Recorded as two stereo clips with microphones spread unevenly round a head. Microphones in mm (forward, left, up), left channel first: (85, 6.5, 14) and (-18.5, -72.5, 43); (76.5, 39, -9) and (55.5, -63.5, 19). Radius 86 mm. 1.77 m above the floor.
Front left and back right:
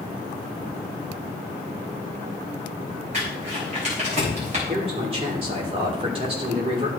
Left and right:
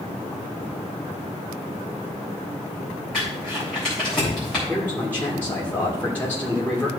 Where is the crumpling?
170° left, 3 m.